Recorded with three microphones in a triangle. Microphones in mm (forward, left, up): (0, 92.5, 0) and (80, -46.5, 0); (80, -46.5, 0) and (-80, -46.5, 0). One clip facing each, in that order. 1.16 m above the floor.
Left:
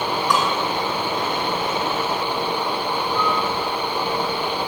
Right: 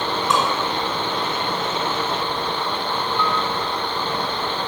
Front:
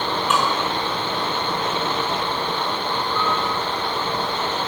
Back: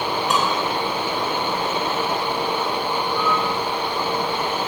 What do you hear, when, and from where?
0.3 s dishes clattering: 125° right, 9.5 m
3.1 s a piano: 160° left, 8 m